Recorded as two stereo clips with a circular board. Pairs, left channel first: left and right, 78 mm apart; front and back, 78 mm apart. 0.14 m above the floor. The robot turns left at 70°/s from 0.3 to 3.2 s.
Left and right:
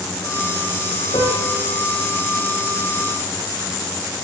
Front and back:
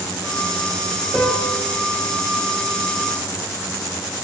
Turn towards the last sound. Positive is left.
turn(degrees=-65)